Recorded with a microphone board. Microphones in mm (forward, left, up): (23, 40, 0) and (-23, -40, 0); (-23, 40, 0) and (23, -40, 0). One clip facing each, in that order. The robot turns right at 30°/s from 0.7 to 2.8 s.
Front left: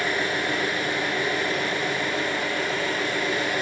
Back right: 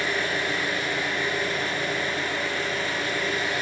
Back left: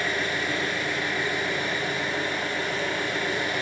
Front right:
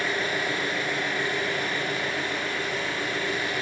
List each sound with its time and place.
0.0 s an engine running: 20° left, 1.5 m; by 3.6 s 85° left, 1.5 m